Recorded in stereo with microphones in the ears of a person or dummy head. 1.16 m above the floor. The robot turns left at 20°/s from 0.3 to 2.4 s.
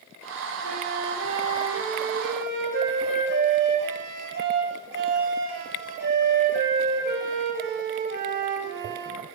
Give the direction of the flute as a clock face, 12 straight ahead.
3 o'clock.